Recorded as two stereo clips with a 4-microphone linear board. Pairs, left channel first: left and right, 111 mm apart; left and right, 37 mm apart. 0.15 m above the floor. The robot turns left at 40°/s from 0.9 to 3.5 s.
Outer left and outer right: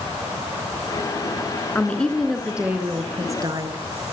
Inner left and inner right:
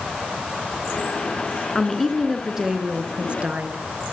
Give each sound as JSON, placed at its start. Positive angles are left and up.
{"t": 1.8, "sound": "a woman speaking", "azimuth_deg": 20, "distance_m": 2.0}